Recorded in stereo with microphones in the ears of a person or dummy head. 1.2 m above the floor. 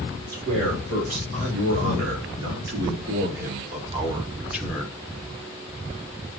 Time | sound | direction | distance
0.3 | a man speaking | 85° right | 3 m